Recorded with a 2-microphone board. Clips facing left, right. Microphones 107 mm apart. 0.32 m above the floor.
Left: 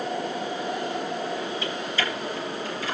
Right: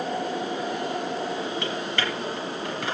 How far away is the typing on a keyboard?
About 3 m.